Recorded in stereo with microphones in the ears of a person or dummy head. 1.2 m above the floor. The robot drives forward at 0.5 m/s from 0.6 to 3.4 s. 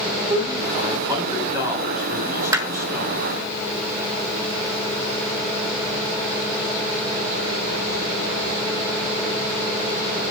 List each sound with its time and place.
0.3 s a man speaking: 20° right (ahead or behind), 4 m; by 3.2 s 15° right (ahead or behind), 5 m
2.5 s hammering: 25° right (ahead or behind), 1.2 m